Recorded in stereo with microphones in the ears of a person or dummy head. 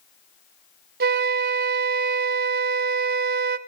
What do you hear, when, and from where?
1.0 s a flute: 50° right (ahead or behind), 1.0 m